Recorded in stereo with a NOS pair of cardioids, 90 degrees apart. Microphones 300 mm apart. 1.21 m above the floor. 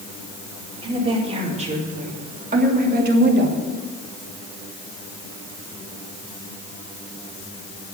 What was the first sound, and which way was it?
A woman speaking, 20° right.